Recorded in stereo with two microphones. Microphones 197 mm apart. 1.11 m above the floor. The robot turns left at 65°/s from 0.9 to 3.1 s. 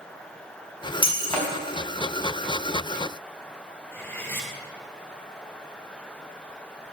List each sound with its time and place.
1.0 s breaking glass: 25° left, 5 m; by 1.6 s 10° right, 5 m
3.9 s cutlery clinking: 10° left (ahead or behind), 2.5 m